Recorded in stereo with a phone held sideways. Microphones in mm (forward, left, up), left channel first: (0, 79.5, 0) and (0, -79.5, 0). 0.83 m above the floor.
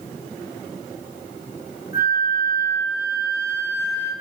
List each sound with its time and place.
1.9 s a flute: 80° left, 6 m